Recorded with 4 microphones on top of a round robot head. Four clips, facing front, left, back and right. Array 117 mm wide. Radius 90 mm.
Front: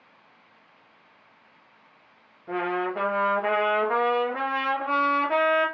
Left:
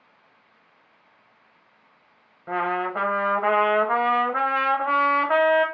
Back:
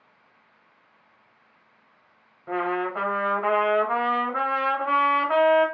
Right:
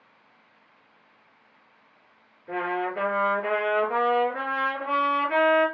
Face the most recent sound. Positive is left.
turn(degrees=110)